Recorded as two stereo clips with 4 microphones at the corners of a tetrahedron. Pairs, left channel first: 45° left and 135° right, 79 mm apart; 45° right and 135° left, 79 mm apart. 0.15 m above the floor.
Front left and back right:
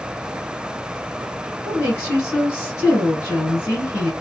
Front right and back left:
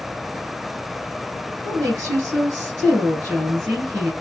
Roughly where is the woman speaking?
Left.